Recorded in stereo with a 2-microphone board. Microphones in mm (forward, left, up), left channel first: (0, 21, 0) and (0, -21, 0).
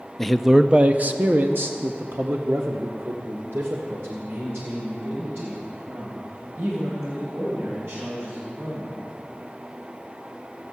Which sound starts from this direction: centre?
A man speaking, at 0.2 s.